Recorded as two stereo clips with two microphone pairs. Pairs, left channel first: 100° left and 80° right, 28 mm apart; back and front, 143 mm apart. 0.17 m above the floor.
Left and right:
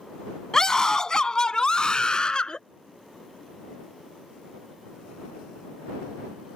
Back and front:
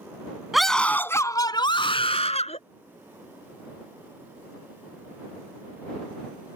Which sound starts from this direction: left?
A scream, at 0.5 s.